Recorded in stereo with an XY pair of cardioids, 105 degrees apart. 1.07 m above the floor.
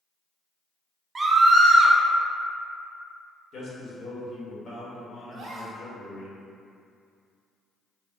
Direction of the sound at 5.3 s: 60° right.